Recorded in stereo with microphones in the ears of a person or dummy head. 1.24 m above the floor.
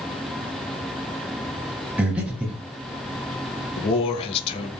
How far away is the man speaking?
About 0.6 m.